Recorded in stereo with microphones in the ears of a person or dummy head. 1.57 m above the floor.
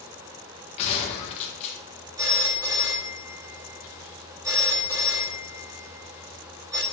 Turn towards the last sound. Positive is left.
turn(degrees=-15)  # may be behind; listen again after turning